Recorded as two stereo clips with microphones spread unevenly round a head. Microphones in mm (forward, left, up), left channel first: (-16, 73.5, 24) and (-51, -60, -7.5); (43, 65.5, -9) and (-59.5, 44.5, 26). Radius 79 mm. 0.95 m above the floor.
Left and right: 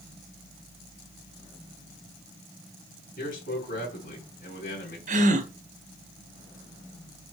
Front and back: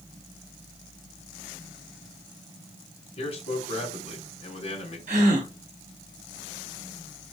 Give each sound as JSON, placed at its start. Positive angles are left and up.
{"t": 3.2, "sound": "a man speaking", "azimuth_deg": 30, "distance_m": 3.5}
{"t": 5.1, "sound": "a gasp", "azimuth_deg": -135, "distance_m": 2.0}